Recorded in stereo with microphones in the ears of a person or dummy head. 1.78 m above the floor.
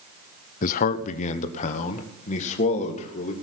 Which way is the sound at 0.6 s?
50° left (ahead or behind).